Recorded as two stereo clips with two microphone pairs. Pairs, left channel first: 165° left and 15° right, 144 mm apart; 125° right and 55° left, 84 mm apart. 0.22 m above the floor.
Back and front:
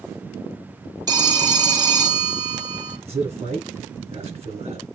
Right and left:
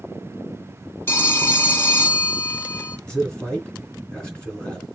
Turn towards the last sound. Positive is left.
turn(degrees=-45)